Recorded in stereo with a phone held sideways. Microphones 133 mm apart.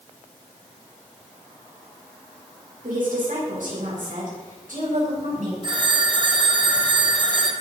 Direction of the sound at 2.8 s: 85° right.